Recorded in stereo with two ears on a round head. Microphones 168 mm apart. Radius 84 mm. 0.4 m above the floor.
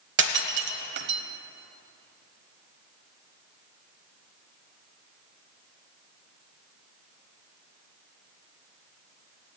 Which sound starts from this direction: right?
Breaking glass, at 0.2 s.